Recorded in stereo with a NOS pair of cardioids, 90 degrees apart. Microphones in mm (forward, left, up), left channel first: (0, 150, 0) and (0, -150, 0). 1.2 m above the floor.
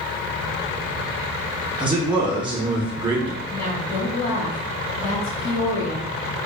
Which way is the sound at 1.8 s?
15° right.